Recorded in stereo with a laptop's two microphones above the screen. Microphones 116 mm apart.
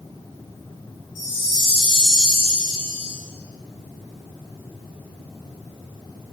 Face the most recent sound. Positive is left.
turn(degrees=-40)  # may be behind; listen again after turning